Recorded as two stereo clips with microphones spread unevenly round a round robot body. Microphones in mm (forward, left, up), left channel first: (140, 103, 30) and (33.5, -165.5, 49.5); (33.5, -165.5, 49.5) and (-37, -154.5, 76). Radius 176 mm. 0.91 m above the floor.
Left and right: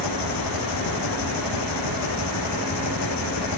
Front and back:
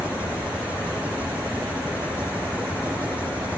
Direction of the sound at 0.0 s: 90° left.